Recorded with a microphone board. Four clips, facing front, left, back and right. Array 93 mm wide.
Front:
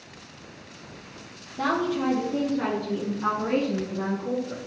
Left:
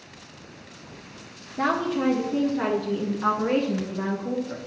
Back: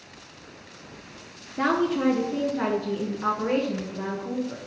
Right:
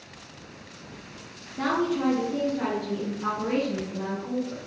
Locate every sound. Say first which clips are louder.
1.6 s a woman speaking: left 1 dB, back 2 dB; 160° left, 2 m; by 4.6 s 85° left, 2 m